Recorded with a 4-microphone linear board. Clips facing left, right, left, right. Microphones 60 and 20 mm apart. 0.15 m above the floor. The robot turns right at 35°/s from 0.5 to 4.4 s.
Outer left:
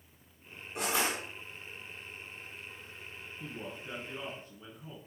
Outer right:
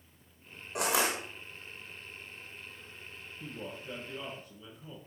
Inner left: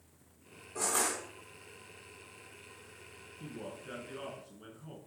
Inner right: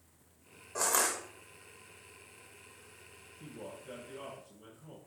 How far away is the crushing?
About 1.8 m.